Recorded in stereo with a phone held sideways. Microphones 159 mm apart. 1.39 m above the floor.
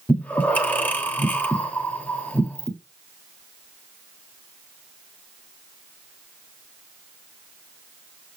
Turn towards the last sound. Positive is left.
turn(degrees=10)  # may be behind; listen again after turning